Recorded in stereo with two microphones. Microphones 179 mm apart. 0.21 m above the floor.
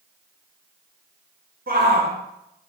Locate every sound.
1.7 s a shout: 55° right (ahead or behind), 3 m